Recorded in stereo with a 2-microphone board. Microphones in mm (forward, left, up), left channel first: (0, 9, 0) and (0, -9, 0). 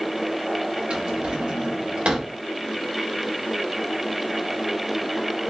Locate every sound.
0.9 s a drawer: 80° right, 1.5 m